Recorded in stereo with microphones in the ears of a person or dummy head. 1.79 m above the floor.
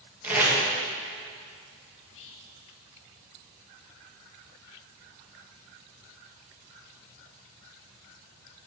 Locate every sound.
0.2 s tape being pulled: 15° right (ahead or behind), 2.5 m
2.0 s whispering: 70° left (ahead or behind), 1.1 m